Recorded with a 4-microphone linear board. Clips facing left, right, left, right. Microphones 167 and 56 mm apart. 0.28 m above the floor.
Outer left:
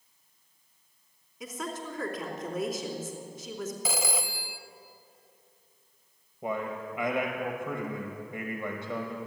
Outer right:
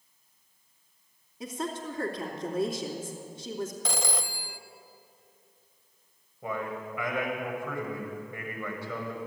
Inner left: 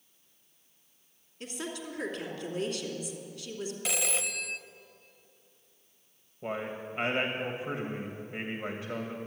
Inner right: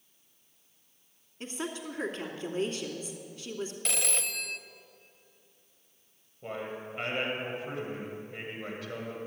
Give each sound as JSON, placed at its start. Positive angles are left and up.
{"t": 1.4, "sound": "a woman speaking", "side_deg": -30, "distance_m": 2.5}
{"t": 3.9, "sound": "a phone ringing", "side_deg": 5, "distance_m": 0.5}
{"t": 6.4, "sound": "a man speaking", "side_deg": 20, "distance_m": 1.5}